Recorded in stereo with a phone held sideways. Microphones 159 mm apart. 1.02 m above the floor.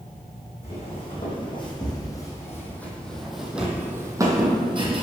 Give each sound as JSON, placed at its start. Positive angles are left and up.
{"t": 0.6, "sound": "footsteps", "side_deg": 40, "distance_m": 3.0}